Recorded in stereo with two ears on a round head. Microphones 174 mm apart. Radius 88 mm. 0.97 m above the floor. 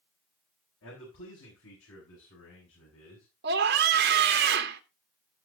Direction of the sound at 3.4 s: 55° right (ahead or behind).